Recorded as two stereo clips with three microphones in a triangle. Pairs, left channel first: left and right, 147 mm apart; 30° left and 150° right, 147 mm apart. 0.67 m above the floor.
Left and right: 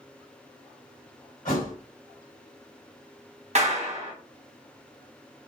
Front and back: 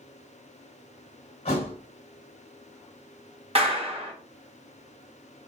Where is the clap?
110° right, 0.9 m.